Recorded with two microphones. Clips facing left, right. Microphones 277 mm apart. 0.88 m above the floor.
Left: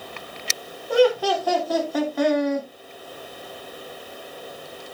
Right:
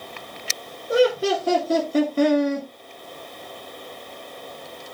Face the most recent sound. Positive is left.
turn(degrees=-35)  # may be behind; listen again after turning